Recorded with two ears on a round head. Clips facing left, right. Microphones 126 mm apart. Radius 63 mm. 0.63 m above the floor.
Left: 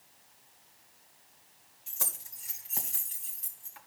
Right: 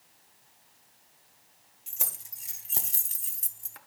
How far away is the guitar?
No guitar in this recording.